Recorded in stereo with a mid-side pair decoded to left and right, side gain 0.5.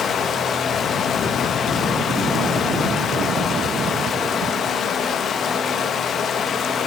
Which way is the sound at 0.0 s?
55° left.